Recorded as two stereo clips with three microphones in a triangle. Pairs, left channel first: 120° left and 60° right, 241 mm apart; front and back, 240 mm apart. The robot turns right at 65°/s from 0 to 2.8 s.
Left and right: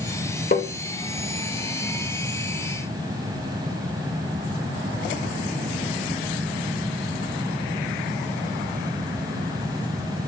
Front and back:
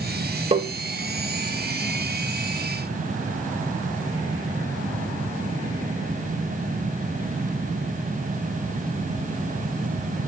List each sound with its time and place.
0.5 s tapping: 135° left, 1.1 m; by 0.7 s 145° left, 1.1 m